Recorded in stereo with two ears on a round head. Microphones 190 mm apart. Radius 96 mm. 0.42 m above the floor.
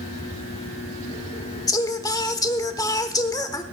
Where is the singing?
20° left (ahead or behind), 0.8 m.